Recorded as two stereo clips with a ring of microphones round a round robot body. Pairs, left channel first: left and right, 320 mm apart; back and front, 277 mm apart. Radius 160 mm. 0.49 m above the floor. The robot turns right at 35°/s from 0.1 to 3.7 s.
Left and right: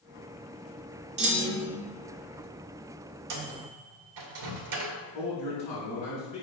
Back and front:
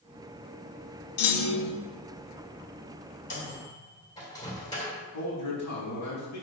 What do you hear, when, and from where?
1.2 s a clunk: 155° right, 1.7 m; by 1.8 s 135° right, 1.7 m
3.3 s a microwave: 120° right, 1.8 m; by 5.0 s 105° right, 1.8 m
5.1 s a man speaking: 160° left, 4 m